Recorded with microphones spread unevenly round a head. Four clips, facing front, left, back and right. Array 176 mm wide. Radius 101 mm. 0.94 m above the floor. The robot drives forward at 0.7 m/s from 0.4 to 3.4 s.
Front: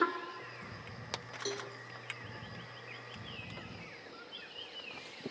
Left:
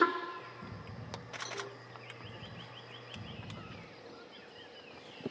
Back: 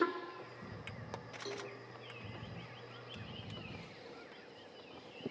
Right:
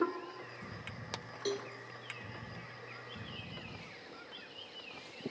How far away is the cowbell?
About 1.2 m.